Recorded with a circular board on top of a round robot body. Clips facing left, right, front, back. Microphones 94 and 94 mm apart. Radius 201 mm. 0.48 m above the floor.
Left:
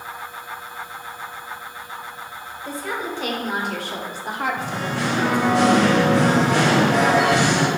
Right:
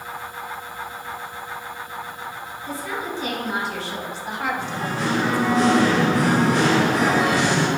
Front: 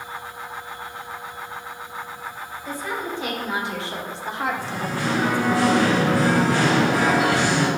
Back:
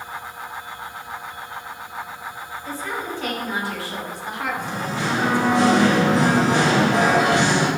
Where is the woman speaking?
75° left, 2.5 m; by 5.6 s 20° left, 1.2 m.